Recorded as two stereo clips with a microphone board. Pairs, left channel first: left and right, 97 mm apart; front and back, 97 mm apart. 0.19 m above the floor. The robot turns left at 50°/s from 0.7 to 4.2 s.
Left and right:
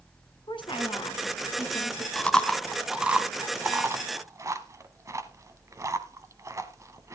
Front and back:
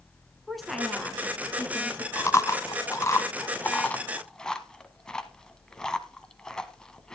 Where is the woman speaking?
90° left, 2 m; by 2.0 s 20° left, 2 m.